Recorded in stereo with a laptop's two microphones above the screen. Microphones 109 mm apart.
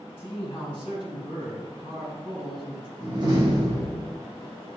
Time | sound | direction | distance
0.2 | a man speaking | 50° left (ahead or behind) | 1.5 m
3.0 | a door slam | 40° right (ahead or behind) | 0.9 m